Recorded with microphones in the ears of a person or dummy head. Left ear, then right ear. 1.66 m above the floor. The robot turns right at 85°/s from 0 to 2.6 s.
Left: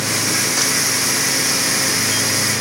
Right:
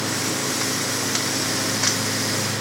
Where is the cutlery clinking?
I don't hear cutlery clinking.